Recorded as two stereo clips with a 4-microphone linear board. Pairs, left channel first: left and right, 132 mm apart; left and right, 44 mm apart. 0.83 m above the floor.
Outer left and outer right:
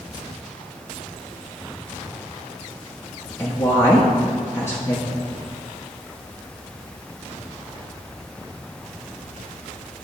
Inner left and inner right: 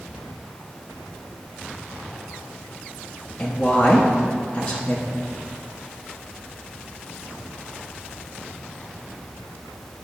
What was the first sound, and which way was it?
A woman speaking, 20° left (ahead or behind).